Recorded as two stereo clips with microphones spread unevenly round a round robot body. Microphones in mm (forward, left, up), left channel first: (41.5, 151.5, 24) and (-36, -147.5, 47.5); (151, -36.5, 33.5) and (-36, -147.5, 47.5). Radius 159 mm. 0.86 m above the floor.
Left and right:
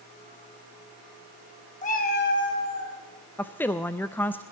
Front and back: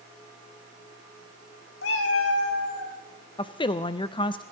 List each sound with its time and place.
1.8 s a cat meowing: 5° left, 1.9 m; by 3.0 s 25° left, 3.5 m
3.4 s a woman speaking: 10° left, 0.5 m